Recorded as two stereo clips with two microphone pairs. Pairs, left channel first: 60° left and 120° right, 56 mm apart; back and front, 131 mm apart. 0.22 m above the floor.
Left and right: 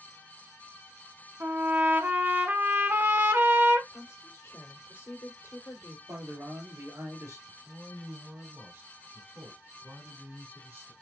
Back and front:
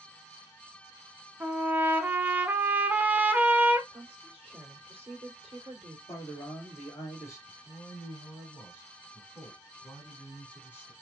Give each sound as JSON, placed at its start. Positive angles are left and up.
{"t": 1.4, "sound": "a trumpet", "azimuth_deg": -75, "distance_m": 0.7}
{"t": 3.9, "sound": "a woman speaking", "azimuth_deg": 30, "distance_m": 2.5}
{"t": 6.1, "sound": "a man speaking", "azimuth_deg": -120, "distance_m": 3.0}
{"t": 7.5, "sound": "a man speaking", "azimuth_deg": -115, "distance_m": 2.5}